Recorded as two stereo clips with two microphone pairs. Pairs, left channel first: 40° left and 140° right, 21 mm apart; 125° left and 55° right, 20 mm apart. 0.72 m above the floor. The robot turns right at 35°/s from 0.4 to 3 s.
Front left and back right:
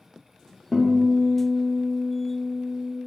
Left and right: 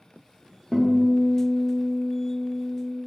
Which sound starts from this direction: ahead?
A guitar, at 0.7 s.